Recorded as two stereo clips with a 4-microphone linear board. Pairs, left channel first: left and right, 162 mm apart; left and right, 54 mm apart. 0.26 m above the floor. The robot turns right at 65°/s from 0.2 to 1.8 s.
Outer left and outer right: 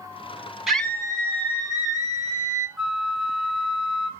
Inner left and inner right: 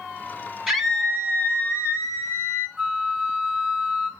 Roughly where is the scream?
Ahead.